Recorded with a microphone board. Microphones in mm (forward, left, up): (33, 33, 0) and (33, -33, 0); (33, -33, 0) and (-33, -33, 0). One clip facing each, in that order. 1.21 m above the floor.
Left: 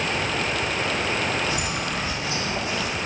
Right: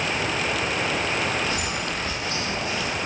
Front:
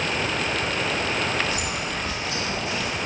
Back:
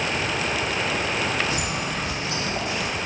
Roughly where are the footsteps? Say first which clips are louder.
Left 1 dB, back 1 dB; behind.